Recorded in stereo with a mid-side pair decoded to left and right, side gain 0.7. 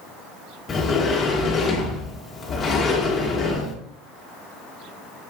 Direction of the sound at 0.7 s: 25° left.